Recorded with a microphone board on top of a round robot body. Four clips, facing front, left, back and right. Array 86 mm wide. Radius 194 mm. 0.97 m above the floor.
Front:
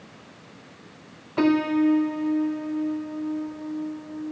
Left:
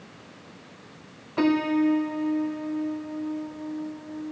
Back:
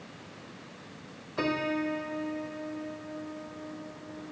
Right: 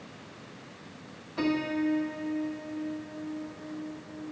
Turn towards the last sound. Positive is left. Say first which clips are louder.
# left 7 dB, front 10 dB
turn(degrees=30)